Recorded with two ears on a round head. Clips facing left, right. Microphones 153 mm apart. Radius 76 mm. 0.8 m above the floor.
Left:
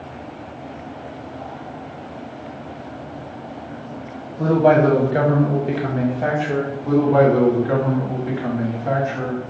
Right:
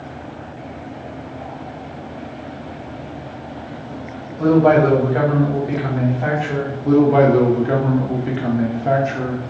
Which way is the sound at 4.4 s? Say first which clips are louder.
Right 2 dB; 15° left (ahead or behind).